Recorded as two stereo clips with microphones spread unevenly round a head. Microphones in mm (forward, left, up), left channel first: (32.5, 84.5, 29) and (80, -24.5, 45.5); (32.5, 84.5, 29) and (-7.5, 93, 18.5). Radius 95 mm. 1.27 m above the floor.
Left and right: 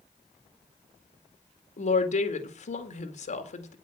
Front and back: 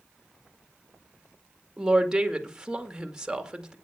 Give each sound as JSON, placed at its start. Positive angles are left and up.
{"t": 1.8, "sound": "a woman speaking", "azimuth_deg": 95, "distance_m": 2.0}